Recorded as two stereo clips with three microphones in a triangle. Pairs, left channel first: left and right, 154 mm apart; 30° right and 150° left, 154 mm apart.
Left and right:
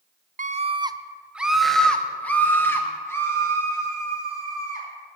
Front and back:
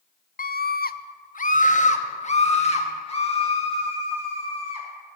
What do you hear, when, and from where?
0.4 s a scream: 55° right, 0.5 m; by 4.9 s 20° left, 3 m